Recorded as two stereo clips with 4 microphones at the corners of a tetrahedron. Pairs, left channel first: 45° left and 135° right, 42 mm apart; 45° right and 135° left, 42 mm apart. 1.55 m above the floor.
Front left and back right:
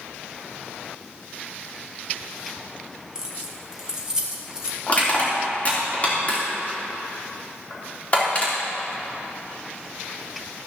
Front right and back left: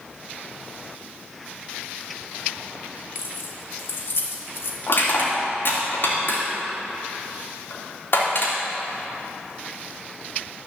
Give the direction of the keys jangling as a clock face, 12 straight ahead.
2 o'clock.